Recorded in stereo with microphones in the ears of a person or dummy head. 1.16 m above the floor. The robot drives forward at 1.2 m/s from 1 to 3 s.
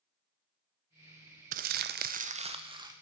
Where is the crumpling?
45° right (ahead or behind), 0.8 m; by 2.9 s 20° right (ahead or behind), 1.6 m.